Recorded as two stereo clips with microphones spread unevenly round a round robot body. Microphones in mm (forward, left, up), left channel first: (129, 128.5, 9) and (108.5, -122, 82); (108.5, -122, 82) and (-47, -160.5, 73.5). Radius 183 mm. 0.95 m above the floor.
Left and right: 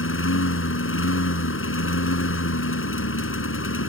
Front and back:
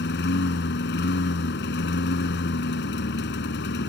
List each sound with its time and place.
0.0 s a lawn mower: 45° left